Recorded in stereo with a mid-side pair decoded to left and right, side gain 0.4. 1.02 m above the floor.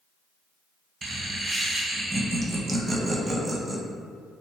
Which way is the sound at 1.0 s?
40° right.